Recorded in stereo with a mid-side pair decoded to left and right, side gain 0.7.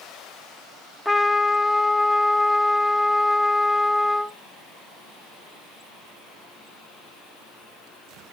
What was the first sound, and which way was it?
A trumpet, straight ahead.